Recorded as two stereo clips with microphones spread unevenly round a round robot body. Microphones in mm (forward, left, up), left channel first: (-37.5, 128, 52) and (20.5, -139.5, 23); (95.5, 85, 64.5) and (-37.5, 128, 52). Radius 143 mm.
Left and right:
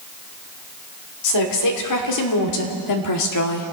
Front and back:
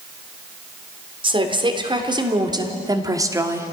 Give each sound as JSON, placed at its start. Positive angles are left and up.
{"t": 1.2, "sound": "a woman speaking", "azimuth_deg": 115, "distance_m": 3.0}